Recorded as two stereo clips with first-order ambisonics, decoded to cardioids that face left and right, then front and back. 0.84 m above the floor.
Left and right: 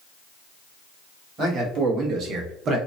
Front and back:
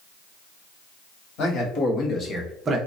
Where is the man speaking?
35° right, 1.5 m; by 2.8 s 140° right, 0.7 m.